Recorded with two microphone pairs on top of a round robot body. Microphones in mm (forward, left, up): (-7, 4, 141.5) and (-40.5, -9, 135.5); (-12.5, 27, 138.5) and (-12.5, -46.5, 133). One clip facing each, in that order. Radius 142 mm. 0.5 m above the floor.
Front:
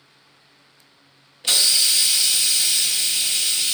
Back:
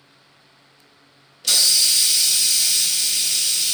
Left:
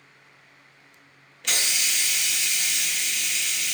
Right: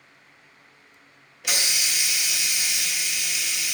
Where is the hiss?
30° right, 0.9 m.